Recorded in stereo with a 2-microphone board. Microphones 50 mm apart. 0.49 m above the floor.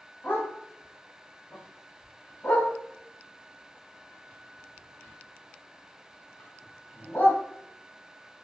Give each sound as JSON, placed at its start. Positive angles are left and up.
{"t": 0.2, "sound": "a dog barking", "side_deg": 30, "distance_m": 1.2}